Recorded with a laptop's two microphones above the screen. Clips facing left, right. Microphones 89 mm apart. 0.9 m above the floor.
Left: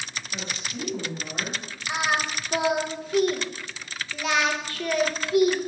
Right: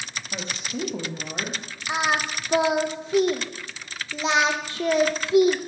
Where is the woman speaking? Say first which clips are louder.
Right 4 dB; 60° right (ahead or behind), 1.2 m; by 1.6 s 15° right (ahead or behind), 0.8 m.